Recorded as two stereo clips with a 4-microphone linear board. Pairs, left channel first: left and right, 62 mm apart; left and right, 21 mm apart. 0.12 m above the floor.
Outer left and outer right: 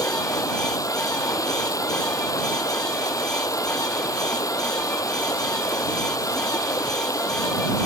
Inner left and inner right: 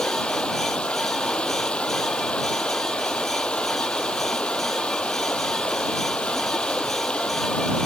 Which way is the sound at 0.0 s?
65° left (ahead or behind).